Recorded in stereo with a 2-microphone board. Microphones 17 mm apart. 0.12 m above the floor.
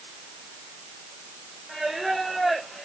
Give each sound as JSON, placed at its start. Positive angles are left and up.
{"t": 1.7, "sound": "singing", "side_deg": -5, "distance_m": 7.5}